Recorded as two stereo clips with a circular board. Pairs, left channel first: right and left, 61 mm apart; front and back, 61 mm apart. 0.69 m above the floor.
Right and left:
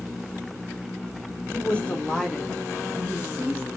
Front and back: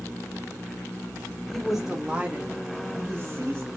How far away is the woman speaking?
About 0.8 m.